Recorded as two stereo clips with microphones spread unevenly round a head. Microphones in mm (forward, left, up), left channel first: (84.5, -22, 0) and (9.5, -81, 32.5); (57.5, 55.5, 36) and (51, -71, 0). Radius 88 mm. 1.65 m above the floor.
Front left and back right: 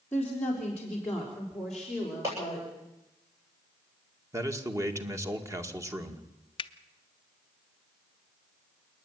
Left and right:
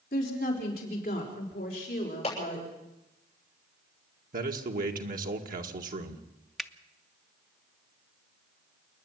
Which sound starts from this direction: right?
A man speaking, at 4.3 s.